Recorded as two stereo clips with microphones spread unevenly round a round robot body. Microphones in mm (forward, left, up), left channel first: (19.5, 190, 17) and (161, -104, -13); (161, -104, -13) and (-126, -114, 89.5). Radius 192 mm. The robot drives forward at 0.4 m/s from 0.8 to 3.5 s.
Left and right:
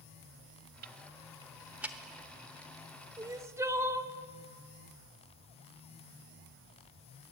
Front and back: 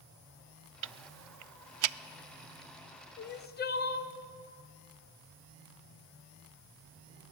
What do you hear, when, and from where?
0.8 s ticking: 115° right, 0.5 m; by 2.0 s 150° right, 0.8 m
3.2 s crying: 10° left, 1.6 m